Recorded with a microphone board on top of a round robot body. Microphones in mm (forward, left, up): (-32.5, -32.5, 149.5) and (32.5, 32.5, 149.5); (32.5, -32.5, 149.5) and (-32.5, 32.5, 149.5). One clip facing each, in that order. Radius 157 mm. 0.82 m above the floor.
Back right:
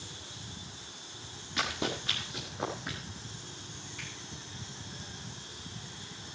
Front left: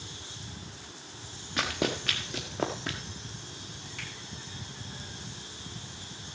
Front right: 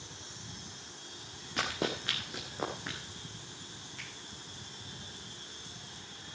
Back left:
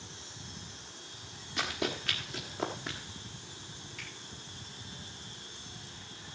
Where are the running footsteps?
5° right, 1.0 m; by 3.0 s 45° left, 1.6 m.